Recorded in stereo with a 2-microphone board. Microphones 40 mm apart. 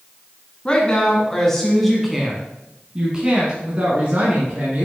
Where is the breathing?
No breathing in this recording.